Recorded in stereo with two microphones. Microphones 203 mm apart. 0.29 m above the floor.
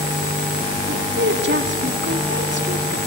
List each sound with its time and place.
0.9 s a woman speaking: 65° right (ahead or behind), 2.5 m